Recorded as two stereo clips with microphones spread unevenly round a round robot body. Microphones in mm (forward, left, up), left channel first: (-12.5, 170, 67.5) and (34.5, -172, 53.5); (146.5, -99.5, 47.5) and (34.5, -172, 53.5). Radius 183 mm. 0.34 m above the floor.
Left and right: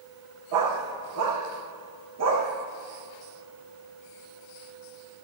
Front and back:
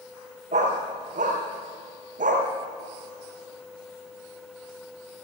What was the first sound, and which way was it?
A dog barking, 120° right.